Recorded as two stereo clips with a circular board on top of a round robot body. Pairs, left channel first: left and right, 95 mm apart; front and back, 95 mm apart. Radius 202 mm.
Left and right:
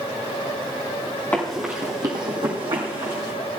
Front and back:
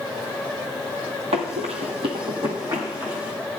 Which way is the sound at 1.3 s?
160° left.